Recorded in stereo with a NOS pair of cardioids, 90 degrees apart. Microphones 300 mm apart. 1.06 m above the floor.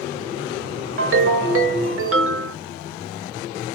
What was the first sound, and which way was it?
A ringtone, 45° right.